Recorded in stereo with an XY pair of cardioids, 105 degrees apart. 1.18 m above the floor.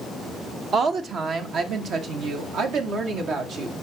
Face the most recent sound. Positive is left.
turn(degrees=-75)